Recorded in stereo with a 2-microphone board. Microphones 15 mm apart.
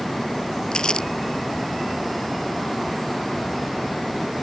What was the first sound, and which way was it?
Crumpling, 55° left (ahead or behind).